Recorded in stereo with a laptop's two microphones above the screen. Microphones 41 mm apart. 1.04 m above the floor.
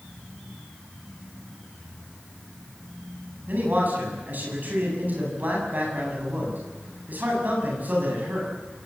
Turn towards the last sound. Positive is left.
turn(degrees=-45)  # may be behind; listen again after turning